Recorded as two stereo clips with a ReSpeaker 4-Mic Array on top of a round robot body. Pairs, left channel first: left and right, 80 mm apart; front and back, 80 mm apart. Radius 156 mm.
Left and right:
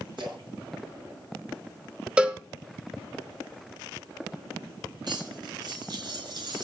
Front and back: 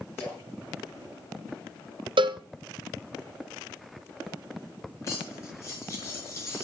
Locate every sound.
0.2 s a splash: 65° right, 6.5 m
2.2 s a cowbell: 165° right, 1.0 m
5.0 s cutlery clinking: 55° right, 5 m